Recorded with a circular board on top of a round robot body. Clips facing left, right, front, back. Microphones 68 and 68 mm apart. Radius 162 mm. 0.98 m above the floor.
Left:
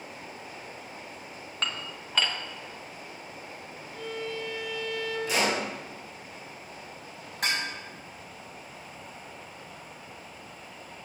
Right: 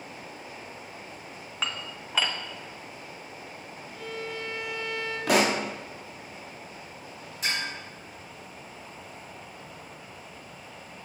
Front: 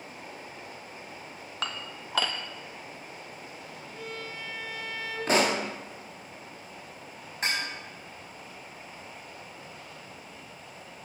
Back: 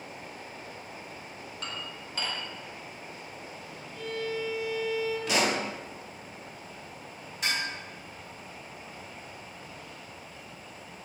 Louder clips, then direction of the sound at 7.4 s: Left 1 dB, front 1 dB; 55° left.